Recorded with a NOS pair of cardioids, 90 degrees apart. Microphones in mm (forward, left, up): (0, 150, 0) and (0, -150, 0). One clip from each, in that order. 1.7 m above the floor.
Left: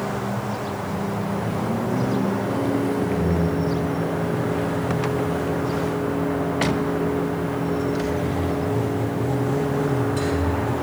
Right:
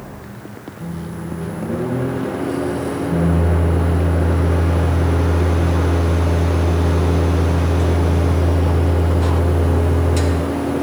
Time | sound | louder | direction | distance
0.8 | a microwave | left 5 dB | 70° right | 3.5 m